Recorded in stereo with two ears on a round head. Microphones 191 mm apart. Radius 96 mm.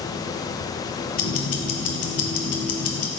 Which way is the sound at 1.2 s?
75° left (ahead or behind).